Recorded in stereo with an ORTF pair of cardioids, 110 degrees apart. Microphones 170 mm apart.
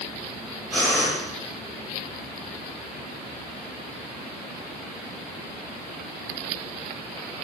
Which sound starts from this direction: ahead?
Breathing, at 0.7 s.